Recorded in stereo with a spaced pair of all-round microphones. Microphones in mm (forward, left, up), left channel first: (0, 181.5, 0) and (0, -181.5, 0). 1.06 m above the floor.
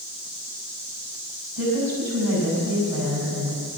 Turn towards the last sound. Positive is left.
turn(degrees=-75)  # may be behind; listen again after turning